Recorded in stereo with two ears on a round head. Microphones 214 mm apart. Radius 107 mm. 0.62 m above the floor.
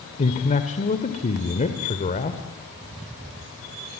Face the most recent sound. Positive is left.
turn(degrees=30)  # may be behind; listen again after turning